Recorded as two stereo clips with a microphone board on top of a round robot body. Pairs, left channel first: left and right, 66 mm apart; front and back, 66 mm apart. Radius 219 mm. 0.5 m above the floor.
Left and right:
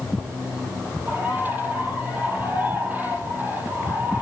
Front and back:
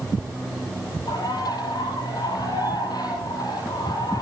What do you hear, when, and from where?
1.1 s a bird: 25° right, 5.5 m